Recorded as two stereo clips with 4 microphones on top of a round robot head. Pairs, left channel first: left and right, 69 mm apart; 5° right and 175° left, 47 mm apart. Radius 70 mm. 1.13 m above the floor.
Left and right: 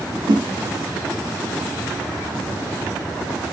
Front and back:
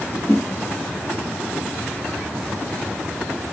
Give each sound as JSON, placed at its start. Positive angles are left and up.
{"t": 0.3, "sound": "a whoosh", "azimuth_deg": -70, "distance_m": 1.0}